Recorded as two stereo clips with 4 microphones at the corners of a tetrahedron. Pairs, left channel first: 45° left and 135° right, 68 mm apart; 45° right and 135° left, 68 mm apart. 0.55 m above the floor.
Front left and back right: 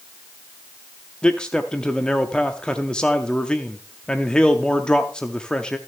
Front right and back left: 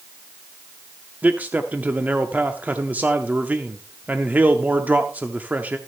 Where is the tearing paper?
I don't hear tearing paper.